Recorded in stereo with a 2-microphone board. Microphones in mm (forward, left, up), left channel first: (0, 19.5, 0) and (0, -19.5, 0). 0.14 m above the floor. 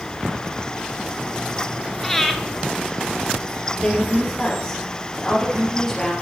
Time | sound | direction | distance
2.0 | breathing | 10° left (ahead or behind) | 1.0 m
3.8 | a woman speaking | 20° left (ahead or behind) | 3 m